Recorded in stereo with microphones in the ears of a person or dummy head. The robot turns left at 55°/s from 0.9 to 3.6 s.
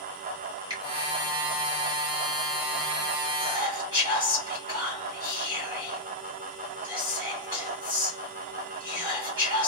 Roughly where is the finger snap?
Right.